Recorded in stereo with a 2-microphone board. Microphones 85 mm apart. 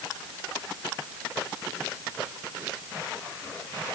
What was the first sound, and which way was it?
Only background noise.